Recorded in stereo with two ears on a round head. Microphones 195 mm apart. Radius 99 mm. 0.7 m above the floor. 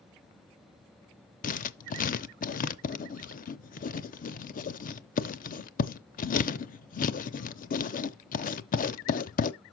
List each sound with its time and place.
1.4 s writing: 40° left (ahead or behind), 0.6 m